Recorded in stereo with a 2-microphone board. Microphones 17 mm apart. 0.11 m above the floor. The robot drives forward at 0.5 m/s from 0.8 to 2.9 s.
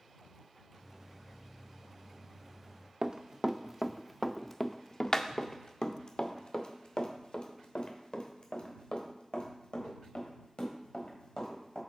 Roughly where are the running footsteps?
Right.